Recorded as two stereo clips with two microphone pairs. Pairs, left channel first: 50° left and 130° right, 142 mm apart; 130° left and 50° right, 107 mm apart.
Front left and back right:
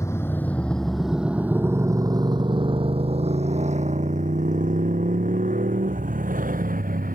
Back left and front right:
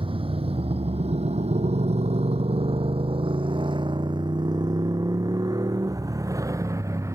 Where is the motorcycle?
20° right; by 7.2 s 115° right.